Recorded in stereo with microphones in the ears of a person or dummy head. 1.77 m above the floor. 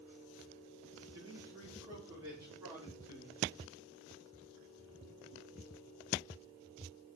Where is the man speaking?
20° right (ahead or behind), 5 m; by 3.5 s 10° right (ahead or behind), 7 m.